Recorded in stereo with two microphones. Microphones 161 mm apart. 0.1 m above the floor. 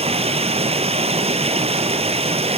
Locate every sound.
0.0 s running water: 40° right (ahead or behind), 1.1 m